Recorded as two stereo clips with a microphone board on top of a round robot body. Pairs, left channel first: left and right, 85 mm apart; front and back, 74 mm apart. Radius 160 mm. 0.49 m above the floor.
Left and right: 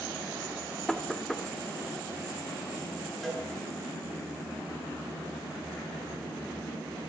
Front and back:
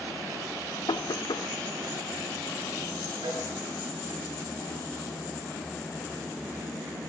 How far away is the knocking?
About 1.3 m.